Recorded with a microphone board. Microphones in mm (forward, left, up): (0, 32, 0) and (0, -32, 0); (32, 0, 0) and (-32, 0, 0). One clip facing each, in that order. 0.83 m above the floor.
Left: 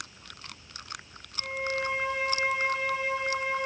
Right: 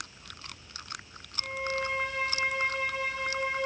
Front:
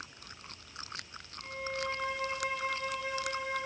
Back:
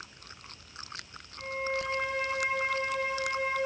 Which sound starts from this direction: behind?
A violin, at 1.4 s.